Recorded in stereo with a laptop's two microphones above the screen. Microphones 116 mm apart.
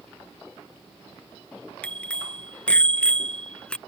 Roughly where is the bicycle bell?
Centre.